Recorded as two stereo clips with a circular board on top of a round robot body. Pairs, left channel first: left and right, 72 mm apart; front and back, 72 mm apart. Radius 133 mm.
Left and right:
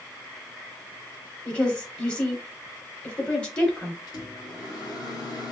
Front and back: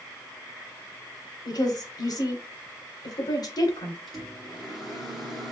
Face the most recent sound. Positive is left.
turn(degrees=85)